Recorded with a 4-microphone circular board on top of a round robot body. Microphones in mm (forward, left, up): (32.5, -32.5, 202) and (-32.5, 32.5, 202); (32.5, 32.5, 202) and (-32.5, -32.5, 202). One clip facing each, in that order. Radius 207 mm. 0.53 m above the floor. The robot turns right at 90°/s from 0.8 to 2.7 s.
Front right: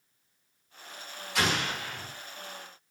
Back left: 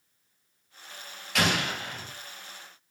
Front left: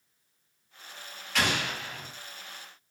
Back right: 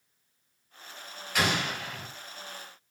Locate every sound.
1.4 s an explosion: 150° left, 2.5 m; by 2.1 s 145° right, 2.5 m